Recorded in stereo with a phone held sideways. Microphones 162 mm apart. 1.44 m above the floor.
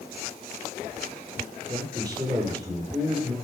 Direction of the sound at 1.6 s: 25° right (ahead or behind).